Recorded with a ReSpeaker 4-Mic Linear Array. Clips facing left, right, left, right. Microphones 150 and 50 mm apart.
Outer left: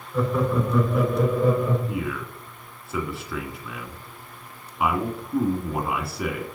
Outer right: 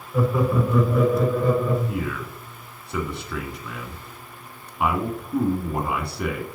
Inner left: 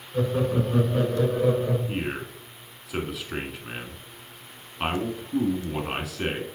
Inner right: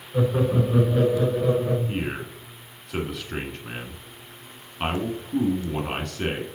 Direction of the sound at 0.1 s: 15° right (ahead or behind).